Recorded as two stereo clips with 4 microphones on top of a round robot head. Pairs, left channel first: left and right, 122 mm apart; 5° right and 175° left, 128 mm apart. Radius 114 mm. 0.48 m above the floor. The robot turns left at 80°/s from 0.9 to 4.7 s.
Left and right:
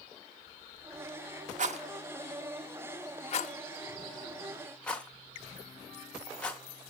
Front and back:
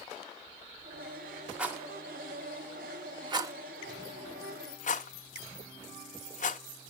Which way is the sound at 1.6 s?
105° right.